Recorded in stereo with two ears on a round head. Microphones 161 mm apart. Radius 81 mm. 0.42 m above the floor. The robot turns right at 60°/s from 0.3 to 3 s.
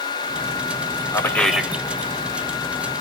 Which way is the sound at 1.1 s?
155° left.